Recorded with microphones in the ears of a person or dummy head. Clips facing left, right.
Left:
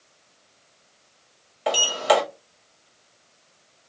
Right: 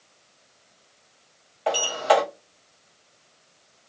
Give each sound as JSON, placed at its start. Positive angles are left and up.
{"t": 1.7, "sound": "a sliding door", "side_deg": 25, "distance_m": 1.6}